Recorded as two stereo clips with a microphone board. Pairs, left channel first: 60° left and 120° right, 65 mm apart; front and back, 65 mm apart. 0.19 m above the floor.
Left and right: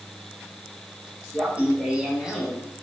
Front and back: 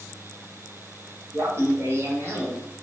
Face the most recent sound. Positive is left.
turn(degrees=150)